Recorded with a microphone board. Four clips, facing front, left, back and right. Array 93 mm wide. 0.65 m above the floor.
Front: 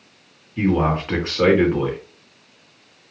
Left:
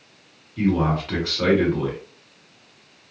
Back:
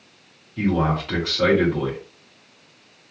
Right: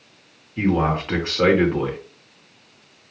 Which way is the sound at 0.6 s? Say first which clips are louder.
Right 1 dB, front 2 dB; 45° right.